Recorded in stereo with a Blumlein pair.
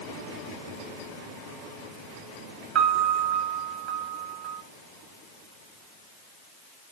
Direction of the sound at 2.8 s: 35° right.